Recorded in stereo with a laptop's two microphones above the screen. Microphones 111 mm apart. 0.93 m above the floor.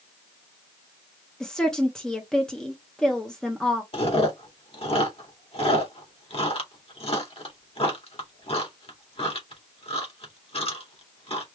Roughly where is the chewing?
Left.